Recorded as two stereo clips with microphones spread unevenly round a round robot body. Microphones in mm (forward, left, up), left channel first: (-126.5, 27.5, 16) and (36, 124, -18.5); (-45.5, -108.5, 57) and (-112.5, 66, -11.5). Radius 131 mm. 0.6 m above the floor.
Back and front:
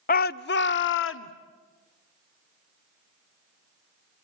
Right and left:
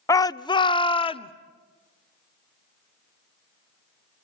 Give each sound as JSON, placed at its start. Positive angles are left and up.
{"t": 0.1, "sound": "a shout", "azimuth_deg": -165, "distance_m": 0.6}